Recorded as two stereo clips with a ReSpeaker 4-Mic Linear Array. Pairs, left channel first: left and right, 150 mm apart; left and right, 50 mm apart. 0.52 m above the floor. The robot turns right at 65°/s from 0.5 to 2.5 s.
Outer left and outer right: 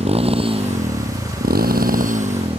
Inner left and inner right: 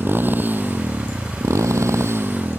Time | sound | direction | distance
0.0 | a motorcycle | 45° right (ahead or behind) | ?